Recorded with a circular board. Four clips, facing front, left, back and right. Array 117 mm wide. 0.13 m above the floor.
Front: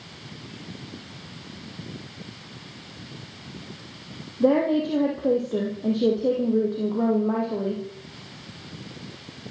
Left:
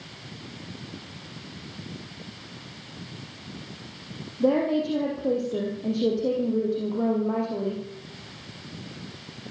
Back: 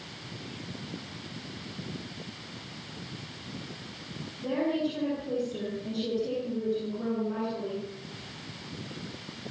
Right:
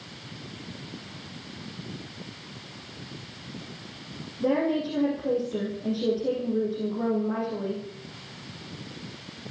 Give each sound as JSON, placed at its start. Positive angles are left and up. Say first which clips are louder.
{"t": 4.4, "sound": "a woman speaking", "louder": "left 2 dB, front 9 dB", "azimuth_deg": 20, "distance_m": 6.0}